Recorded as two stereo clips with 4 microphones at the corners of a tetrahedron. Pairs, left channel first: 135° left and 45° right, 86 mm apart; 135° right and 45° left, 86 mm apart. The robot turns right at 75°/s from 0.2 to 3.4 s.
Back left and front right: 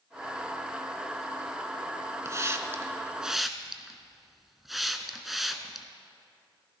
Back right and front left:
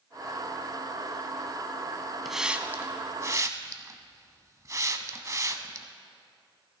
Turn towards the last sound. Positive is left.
turn(degrees=40)